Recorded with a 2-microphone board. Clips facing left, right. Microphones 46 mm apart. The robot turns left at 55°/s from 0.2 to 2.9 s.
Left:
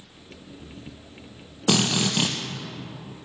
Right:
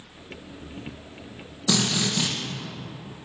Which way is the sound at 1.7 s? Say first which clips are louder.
Left 2 dB; 95° left.